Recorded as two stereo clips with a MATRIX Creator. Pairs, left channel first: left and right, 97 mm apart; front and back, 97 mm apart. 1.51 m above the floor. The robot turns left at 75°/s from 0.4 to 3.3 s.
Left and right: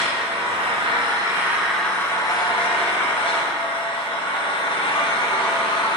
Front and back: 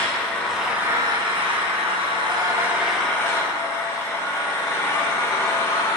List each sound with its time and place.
0.0 s an engine running: 80° right, 1.2 m; by 6.0 s 65° left, 1.2 m